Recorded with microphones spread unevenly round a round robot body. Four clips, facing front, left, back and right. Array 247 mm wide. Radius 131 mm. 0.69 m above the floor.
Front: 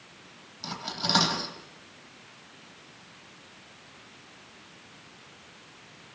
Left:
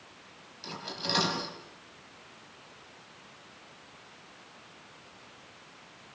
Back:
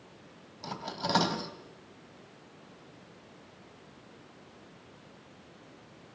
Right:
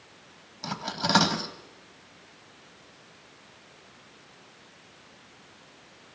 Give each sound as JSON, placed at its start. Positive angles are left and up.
{"t": 0.6, "sound": "cutlery clinking", "azimuth_deg": -75, "distance_m": 3.0}